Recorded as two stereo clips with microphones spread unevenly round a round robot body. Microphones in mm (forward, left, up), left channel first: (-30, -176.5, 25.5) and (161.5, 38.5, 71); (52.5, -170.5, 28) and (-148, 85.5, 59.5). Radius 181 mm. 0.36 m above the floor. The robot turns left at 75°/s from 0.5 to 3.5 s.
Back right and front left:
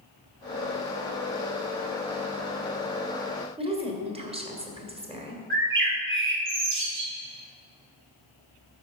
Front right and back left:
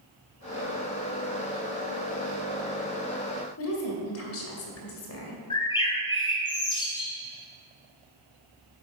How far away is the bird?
About 1.9 m.